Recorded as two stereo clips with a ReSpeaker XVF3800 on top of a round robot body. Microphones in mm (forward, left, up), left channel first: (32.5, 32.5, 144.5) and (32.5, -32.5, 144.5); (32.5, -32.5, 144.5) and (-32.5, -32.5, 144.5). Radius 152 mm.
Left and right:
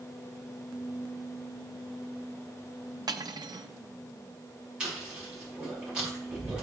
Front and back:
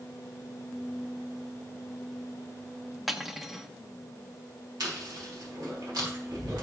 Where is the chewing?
165° right, 5 m.